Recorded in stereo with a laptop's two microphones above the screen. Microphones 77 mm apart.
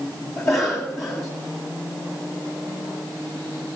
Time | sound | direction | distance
0.4 | a cough | 30° left (ahead or behind) | 2 m